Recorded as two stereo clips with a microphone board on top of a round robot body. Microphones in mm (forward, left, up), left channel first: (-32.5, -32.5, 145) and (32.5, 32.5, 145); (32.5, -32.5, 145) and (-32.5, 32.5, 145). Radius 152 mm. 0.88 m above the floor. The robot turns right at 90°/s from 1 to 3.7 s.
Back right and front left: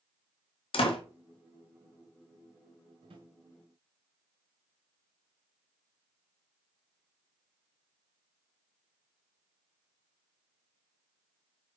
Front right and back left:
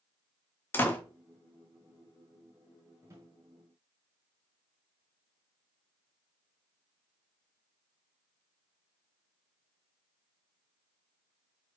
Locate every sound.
0.7 s a door slam: 115° right, 1.5 m
3.0 s a drawer: 65° left, 1.4 m; by 3.3 s 90° left, 1.4 m